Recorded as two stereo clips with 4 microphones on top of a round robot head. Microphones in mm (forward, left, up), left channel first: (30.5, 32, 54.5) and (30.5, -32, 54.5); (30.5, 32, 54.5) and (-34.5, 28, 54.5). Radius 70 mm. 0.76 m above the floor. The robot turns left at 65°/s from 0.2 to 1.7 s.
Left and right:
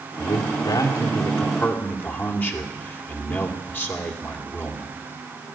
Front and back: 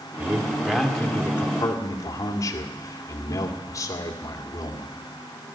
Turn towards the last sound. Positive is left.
turn(degrees=35)